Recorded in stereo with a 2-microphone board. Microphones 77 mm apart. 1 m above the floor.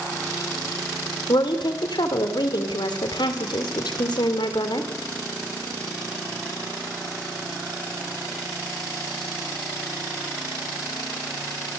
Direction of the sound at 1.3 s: 80° left.